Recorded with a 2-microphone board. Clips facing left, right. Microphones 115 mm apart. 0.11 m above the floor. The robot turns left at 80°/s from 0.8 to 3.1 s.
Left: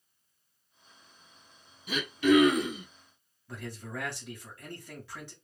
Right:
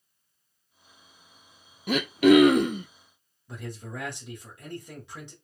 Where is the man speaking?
20° right (ahead or behind), 1.6 m.